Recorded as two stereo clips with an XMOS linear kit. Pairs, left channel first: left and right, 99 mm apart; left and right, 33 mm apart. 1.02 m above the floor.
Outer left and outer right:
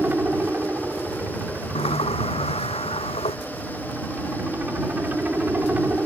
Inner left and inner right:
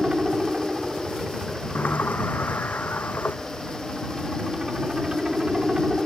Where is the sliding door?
85° left.